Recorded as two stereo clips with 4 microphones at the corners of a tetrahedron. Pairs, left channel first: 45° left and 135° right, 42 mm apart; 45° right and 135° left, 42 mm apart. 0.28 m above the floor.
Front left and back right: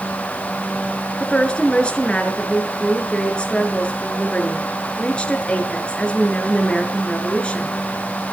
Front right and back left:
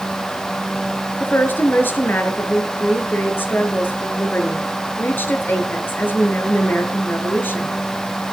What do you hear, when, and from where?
1.2 s a woman speaking: 15° right, 4.5 m